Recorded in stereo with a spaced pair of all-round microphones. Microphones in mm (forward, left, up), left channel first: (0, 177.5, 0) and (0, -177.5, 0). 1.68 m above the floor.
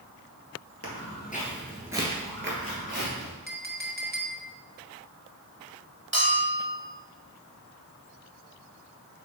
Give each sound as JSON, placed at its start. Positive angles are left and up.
{"t": 0.8, "sound": "footsteps", "side_deg": 40, "distance_m": 2.0}
{"t": 3.5, "sound": "a clink", "side_deg": -25, "distance_m": 0.9}
{"t": 6.1, "sound": "a bell", "side_deg": -30, "distance_m": 2.0}